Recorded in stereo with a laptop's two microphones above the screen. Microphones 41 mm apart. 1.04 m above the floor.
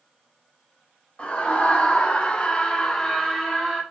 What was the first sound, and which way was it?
A scream, 30° left (ahead or behind).